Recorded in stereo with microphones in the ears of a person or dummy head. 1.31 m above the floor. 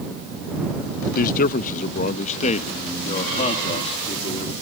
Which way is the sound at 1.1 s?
45° left (ahead or behind).